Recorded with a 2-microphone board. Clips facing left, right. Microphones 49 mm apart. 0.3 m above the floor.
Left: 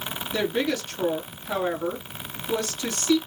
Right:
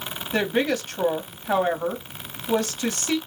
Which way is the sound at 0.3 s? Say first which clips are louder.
Right 3 dB; 50° right (ahead or behind).